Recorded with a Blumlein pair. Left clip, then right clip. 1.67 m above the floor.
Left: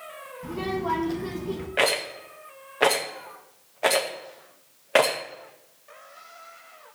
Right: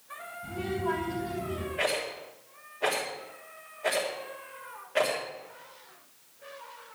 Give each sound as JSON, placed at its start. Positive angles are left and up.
{"t": 0.4, "sound": "a child speaking", "azimuth_deg": 60, "distance_m": 2.5}
{"t": 1.8, "sound": "a rattle", "azimuth_deg": 40, "distance_m": 1.9}